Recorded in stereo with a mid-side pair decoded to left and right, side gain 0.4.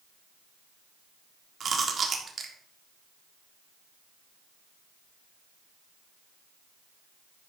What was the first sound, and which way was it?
Chewing, 50° right.